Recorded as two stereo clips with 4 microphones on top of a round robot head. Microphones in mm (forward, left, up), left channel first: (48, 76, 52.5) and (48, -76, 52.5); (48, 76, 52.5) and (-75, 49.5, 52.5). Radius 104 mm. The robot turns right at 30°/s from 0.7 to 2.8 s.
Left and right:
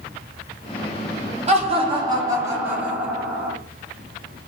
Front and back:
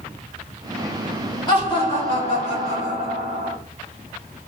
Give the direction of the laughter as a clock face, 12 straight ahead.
2 o'clock.